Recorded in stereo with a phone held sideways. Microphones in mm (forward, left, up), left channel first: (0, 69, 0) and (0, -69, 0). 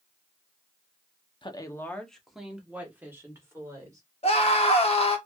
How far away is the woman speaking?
About 0.6 m.